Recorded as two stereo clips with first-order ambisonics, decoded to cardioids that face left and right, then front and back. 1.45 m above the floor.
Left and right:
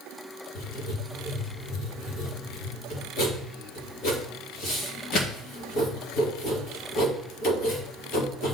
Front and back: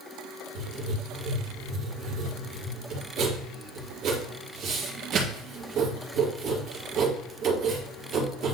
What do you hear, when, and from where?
0.6 s writing: 130° left, 2 m